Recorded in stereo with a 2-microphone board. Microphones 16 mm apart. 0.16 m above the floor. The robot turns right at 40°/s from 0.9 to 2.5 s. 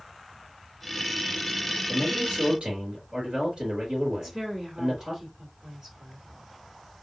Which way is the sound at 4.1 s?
30° right (ahead or behind).